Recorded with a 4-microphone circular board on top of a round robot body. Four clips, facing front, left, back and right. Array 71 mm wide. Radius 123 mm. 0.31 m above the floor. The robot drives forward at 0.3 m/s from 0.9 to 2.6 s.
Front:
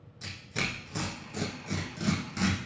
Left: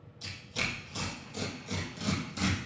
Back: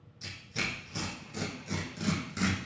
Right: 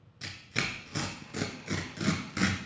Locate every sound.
0.2 s tearing paper: 75° right, 1.3 m; by 2.6 s 100° right, 1.2 m